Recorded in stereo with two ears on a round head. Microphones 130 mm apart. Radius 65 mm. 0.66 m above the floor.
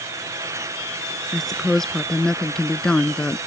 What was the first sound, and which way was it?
A woman speaking, centre (ahead or behind).